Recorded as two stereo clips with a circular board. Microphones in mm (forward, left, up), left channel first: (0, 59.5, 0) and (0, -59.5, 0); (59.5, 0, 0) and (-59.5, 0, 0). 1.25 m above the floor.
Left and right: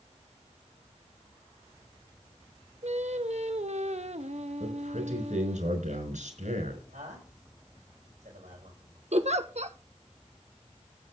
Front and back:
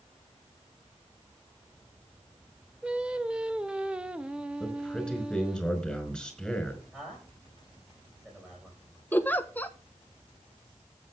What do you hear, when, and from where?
2.8 s singing: 100° right, 0.9 m
4.6 s a man speaking: 85° right, 5.5 m
6.9 s a man speaking: 100° right, 9 m
9.1 s a giggle: 75° right, 1.0 m